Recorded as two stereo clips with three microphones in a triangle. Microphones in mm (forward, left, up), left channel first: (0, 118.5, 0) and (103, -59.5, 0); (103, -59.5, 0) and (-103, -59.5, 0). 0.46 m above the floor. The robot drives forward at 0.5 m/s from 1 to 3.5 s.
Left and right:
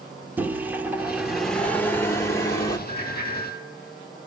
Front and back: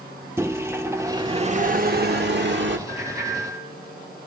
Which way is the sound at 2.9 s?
100° right.